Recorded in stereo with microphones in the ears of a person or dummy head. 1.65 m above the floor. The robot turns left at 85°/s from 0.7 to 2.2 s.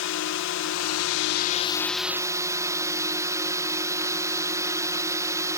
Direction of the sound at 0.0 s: 110° left.